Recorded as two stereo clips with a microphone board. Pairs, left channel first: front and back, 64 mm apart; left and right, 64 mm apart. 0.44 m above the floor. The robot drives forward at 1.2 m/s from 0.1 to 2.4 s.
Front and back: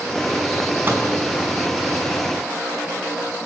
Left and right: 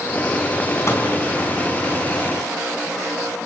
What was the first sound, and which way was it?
A microwave, 130° left.